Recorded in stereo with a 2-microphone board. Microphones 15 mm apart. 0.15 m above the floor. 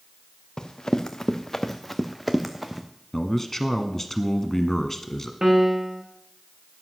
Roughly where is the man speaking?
Centre.